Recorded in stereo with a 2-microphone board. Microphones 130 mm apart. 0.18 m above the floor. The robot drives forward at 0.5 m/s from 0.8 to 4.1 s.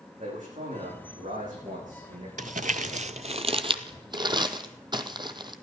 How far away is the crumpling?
About 0.6 m.